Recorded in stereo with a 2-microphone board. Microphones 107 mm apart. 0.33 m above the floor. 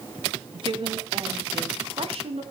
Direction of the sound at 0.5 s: 50° right (ahead or behind).